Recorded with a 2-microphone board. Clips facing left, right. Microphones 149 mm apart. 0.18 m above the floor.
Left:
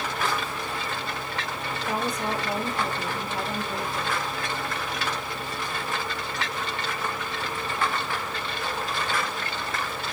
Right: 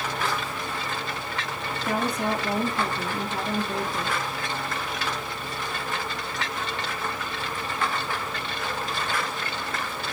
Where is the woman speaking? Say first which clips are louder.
Right 3 dB; 65° right (ahead or behind), 3 m.